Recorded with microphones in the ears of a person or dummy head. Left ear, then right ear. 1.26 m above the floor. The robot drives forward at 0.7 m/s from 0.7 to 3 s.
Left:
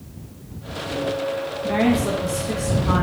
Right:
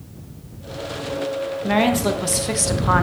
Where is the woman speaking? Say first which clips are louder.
Right 2 dB; 40° right (ahead or behind), 1.0 m; by 3.0 s 70° right (ahead or behind), 0.7 m.